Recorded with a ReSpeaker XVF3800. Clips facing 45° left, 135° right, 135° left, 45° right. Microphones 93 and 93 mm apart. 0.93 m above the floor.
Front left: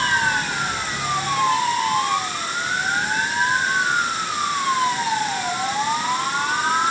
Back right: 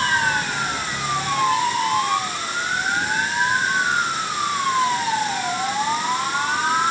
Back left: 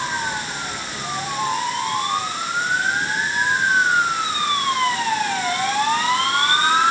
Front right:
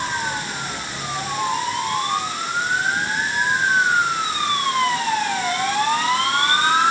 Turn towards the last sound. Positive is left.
No sound to turn to.